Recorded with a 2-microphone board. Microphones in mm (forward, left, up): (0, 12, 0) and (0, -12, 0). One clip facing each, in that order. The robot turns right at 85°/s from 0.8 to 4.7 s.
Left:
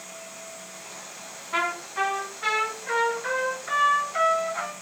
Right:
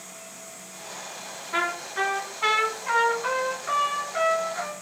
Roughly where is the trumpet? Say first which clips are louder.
Even; behind left.